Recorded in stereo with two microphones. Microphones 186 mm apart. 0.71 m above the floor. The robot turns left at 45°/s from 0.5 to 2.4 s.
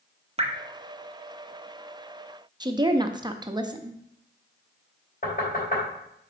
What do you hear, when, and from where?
0.4 s dripping: 35° right (ahead or behind), 0.9 m
2.6 s a woman speaking: 25° right (ahead or behind), 0.5 m
5.2 s knocking: 50° left (ahead or behind), 3 m